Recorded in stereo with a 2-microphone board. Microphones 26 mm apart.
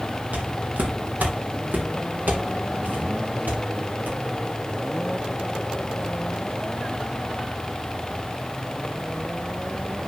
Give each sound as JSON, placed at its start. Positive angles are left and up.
{"t": 0.3, "sound": "footsteps", "side_deg": -75, "distance_m": 2.0}